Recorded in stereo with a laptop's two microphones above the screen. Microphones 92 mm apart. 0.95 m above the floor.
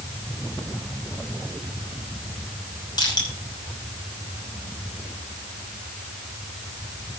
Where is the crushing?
50° left (ahead or behind), 5.5 m.